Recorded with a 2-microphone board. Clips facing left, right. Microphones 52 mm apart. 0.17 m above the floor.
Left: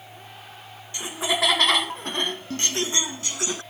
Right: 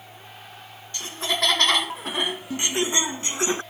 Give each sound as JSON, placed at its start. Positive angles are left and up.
{"t": 0.9, "sound": "laughter", "side_deg": 15}